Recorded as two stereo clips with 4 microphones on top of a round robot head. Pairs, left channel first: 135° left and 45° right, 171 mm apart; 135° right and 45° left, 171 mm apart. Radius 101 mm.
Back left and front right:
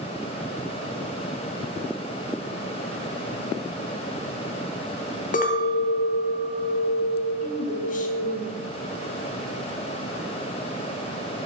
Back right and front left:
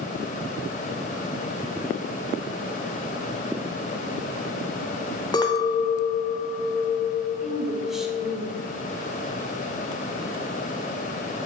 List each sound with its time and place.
5.3 s a clink: 165° left, 0.8 m
7.4 s a woman speaking: 130° left, 1.2 m